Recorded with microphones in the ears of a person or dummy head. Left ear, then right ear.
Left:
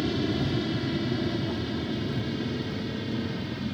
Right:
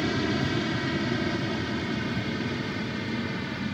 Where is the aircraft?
50° right (ahead or behind); by 3.8 s 45° right (ahead or behind).